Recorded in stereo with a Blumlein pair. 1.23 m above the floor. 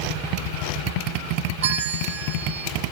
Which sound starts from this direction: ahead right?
A bell, at 1.6 s.